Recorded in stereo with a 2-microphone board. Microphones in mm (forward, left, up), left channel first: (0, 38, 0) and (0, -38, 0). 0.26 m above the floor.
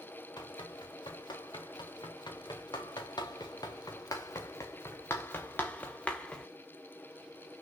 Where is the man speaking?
I don't hear a man speaking.